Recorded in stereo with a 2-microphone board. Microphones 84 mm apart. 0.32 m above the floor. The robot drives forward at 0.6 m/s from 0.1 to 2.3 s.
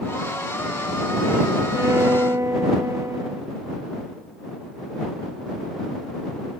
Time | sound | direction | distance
1.7 | a violin | 30° right (ahead or behind) | ?